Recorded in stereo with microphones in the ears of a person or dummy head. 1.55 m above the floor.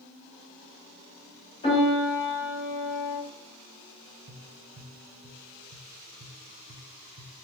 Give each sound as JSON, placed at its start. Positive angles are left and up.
{"t": 1.6, "sound": "a piano", "side_deg": 35, "distance_m": 2.0}
{"t": 4.3, "sound": "tapping", "side_deg": -55, "distance_m": 0.6}